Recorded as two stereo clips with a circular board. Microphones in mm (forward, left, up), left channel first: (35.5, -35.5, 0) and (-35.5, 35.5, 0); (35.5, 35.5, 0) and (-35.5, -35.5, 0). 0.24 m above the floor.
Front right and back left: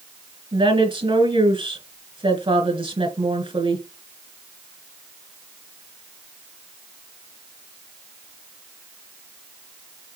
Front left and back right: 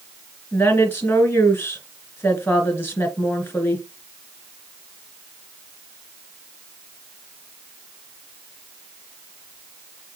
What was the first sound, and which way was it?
A woman speaking, 110° left.